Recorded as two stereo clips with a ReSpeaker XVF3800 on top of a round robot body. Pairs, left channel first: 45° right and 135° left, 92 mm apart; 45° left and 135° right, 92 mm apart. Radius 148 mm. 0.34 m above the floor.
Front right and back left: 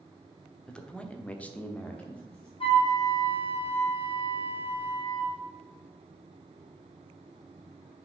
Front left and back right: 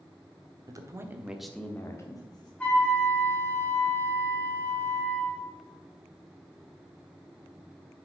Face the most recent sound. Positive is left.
turn(degrees=-30)